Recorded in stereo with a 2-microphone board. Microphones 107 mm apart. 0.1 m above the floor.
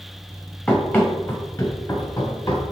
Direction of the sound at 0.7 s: 15° left (ahead or behind).